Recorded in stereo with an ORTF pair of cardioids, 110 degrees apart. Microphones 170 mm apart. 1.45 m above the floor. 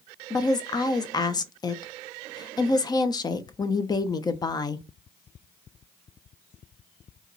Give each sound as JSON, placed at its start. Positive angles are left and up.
{"t": 0.3, "sound": "a woman speaking", "azimuth_deg": 25, "distance_m": 0.7}